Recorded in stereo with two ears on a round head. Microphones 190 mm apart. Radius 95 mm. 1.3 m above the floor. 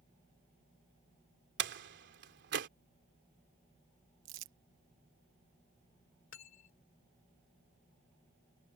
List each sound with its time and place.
1.6 s a door slam: 55° right (ahead or behind)
4.2 s crumpling: 65° right (ahead or behind)
6.3 s cutlery clinking: 65° left (ahead or behind)